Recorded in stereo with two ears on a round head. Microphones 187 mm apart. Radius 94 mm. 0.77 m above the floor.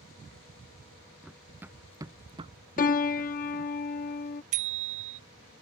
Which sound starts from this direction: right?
A bicycle bell, at 4.5 s.